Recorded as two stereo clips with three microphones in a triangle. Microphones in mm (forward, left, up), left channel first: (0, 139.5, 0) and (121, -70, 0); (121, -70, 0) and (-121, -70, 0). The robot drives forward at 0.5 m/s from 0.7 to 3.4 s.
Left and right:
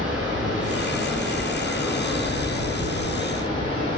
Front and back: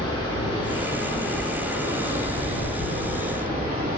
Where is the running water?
20° left, 1.2 m; by 4.0 s 170° left, 1.5 m.